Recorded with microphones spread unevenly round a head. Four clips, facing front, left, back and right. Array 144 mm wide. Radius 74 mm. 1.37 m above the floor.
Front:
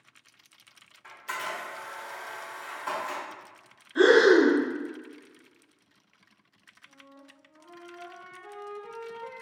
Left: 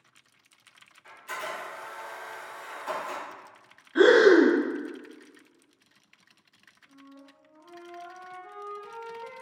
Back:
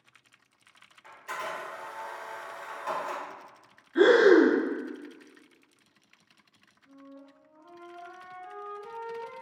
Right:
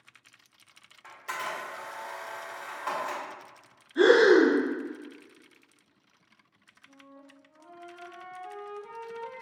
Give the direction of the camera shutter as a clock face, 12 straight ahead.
4 o'clock.